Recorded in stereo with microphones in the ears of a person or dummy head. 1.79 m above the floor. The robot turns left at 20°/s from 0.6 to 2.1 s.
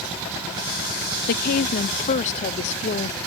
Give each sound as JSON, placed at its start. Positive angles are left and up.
{"t": 1.3, "sound": "a woman speaking", "side_deg": 55}